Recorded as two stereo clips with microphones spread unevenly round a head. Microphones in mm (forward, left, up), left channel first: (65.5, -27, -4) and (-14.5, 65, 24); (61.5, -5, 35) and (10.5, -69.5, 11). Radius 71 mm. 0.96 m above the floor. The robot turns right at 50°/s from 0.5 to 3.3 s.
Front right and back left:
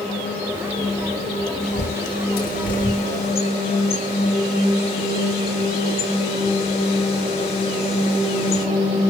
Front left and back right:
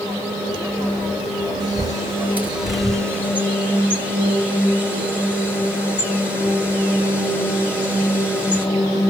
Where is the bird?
95° right, 4.5 m; by 8.7 s 10° right, 4.5 m.